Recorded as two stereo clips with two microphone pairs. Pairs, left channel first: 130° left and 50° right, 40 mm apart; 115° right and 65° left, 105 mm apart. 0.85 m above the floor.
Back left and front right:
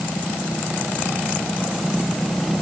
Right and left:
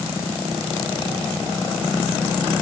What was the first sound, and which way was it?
Only background noise.